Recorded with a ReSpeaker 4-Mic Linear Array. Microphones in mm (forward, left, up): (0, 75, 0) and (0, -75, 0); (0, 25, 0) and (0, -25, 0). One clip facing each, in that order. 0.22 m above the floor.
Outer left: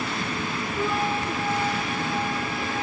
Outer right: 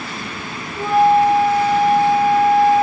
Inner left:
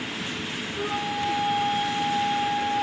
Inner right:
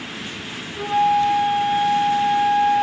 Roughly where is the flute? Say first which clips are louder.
Outer right 14 dB, inner right 12 dB; right.